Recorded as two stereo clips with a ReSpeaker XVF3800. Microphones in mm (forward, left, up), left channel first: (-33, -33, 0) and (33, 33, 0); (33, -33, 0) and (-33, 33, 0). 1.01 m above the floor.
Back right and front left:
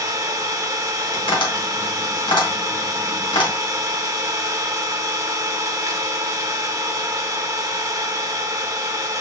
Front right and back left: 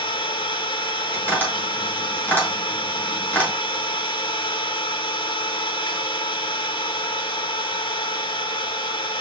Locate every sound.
0.0 s an engine running: 5° right, 0.8 m
1.1 s tapping: 115° right, 2 m